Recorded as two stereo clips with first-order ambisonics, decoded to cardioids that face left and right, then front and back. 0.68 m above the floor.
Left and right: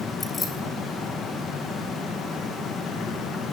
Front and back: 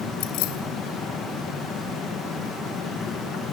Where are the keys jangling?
15° left, 3.5 m.